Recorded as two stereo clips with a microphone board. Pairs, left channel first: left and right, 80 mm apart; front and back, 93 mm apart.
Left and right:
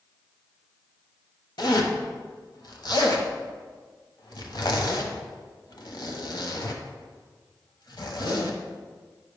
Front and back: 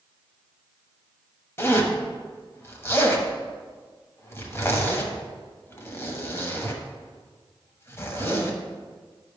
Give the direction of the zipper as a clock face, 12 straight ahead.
10 o'clock.